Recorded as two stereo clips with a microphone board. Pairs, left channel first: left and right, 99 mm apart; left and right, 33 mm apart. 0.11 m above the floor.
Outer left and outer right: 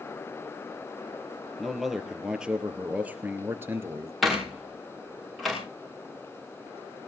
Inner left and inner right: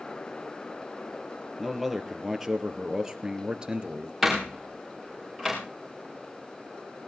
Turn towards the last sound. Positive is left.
turn(degrees=0)  # may be behind; listen again after turning